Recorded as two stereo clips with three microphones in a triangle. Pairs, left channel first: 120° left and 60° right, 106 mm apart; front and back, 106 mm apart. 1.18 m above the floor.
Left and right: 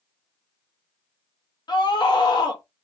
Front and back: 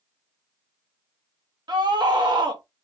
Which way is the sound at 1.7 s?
150° left.